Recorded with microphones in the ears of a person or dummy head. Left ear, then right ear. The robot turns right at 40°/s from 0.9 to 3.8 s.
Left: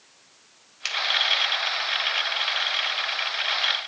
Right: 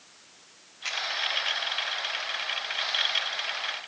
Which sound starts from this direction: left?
A finger snap, at 0.8 s.